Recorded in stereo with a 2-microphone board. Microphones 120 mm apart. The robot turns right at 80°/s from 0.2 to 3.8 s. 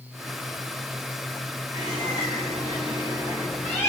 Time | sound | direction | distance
1.7 | a bird | 145° right | 1.8 m